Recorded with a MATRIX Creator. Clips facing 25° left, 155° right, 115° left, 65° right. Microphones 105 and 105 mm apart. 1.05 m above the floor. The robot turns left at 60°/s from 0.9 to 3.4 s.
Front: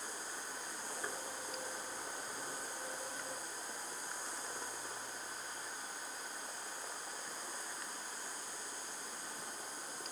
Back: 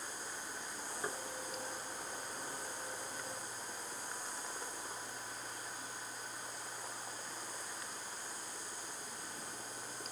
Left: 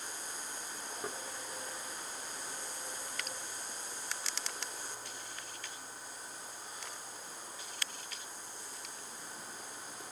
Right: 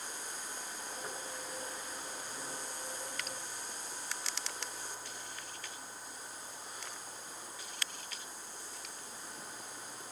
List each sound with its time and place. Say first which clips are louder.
1.0 s knocking: back 3 dB, left 4 dB; 130° left, 2.5 m; by 1.2 s 120° left, 2.5 m